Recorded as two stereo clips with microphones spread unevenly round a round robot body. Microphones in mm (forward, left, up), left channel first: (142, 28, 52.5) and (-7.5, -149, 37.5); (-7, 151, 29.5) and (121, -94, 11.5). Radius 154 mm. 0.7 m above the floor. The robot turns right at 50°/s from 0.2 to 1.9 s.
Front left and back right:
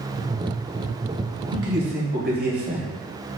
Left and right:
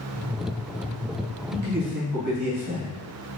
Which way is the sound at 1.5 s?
105° right.